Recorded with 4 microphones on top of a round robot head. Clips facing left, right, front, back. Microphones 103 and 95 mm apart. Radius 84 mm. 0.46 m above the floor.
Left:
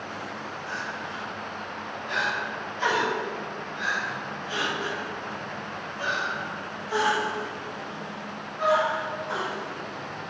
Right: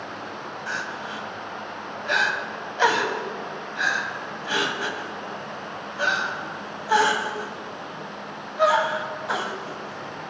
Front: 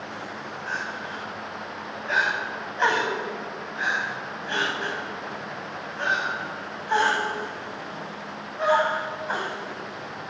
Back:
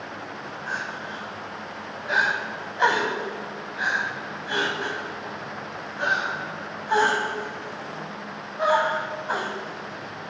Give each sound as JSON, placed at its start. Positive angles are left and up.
{"t": 0.7, "sound": "crying", "azimuth_deg": -95, "distance_m": 0.6}